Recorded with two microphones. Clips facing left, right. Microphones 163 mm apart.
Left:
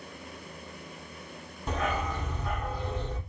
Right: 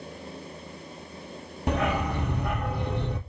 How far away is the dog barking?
About 1.4 m.